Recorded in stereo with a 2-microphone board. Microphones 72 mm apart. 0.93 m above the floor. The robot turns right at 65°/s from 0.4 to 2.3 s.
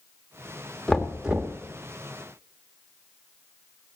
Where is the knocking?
165° left, 0.9 m; by 1.6 s 145° right, 0.9 m.